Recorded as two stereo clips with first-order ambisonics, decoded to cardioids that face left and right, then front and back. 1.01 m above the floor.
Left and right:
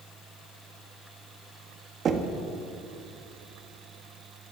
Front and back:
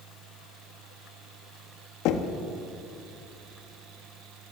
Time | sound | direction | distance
2.0 | knocking | 30° right | 1.2 m